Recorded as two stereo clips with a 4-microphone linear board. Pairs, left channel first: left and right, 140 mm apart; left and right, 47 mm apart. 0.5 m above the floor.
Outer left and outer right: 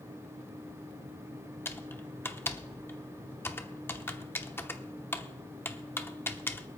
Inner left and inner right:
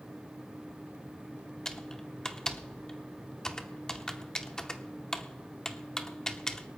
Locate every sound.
1.6 s typing on a keyboard: 15° left (ahead or behind), 0.8 m